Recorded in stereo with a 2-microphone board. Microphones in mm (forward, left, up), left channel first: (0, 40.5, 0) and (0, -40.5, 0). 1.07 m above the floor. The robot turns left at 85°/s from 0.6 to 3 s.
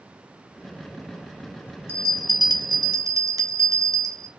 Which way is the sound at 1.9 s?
30° right.